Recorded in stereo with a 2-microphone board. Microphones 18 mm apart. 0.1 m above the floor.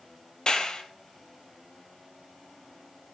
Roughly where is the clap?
Left.